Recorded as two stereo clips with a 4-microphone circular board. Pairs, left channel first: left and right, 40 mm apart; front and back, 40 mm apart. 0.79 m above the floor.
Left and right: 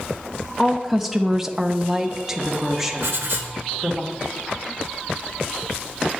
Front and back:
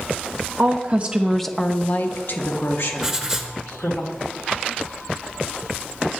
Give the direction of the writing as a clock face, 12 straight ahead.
3 o'clock.